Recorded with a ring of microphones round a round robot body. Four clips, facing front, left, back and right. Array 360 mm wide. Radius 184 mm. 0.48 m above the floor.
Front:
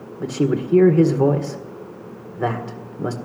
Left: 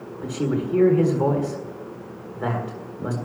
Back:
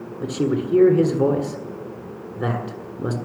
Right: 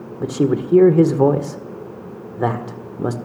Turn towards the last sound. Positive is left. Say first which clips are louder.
# right 6 dB, front 1 dB
turn(degrees=-80)